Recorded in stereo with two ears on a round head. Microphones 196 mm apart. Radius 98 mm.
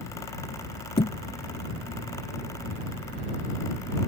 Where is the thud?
30° left (ahead or behind).